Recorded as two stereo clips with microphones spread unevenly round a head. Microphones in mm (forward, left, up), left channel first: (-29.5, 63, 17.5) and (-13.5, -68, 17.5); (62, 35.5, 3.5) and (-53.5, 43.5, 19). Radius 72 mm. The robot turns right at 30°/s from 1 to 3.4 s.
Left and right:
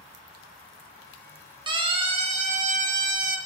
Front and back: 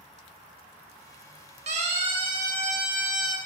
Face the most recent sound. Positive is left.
turn(degrees=-90)